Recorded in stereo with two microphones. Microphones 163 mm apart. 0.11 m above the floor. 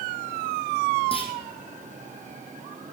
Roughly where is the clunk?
Left.